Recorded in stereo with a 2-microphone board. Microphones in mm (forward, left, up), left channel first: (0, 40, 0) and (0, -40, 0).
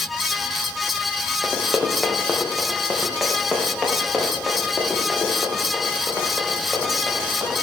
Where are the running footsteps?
5° right (ahead or behind), 2.5 m; by 7.5 s 10° right (ahead or behind), 6.5 m.